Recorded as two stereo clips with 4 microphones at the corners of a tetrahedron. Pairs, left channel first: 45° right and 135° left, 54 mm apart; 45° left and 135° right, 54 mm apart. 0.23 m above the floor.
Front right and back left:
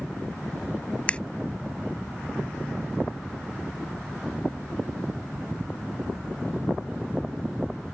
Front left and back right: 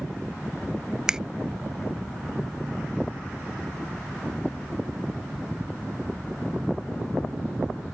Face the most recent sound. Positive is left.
turn(degrees=-75)